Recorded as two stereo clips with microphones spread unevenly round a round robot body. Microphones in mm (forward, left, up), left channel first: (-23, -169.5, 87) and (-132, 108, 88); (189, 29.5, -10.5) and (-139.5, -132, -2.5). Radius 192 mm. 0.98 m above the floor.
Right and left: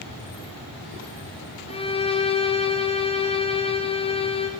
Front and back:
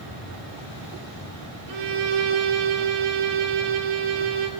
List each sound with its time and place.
1.7 s a violin: 140° right, 4.5 m